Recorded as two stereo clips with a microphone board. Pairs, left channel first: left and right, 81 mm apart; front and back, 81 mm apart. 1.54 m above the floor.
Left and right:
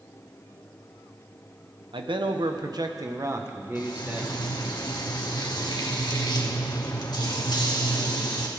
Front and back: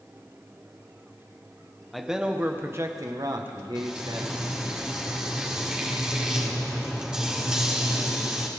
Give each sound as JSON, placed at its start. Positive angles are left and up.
{"t": 1.9, "sound": "a man speaking", "azimuth_deg": -90, "distance_m": 1.1}
{"t": 3.8, "sound": "frying", "azimuth_deg": 100, "distance_m": 1.9}